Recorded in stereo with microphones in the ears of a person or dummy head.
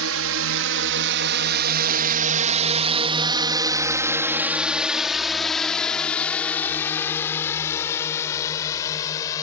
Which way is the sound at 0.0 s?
80° right.